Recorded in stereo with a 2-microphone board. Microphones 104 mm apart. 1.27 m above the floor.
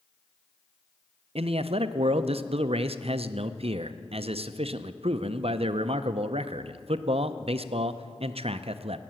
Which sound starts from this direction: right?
A man speaking, at 1.4 s.